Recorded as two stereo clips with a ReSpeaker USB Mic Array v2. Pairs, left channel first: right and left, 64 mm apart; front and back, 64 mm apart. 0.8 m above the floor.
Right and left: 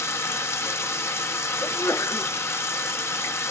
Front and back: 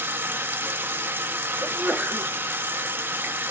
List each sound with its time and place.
0.0 s running water: 130° right, 0.7 m
1.6 s a sneeze: 110° right, 1.4 m